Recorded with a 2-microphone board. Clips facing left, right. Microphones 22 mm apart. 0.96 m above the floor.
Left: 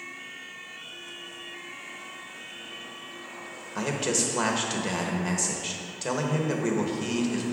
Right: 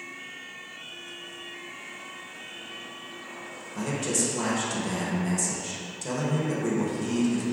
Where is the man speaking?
40° left (ahead or behind), 0.9 m.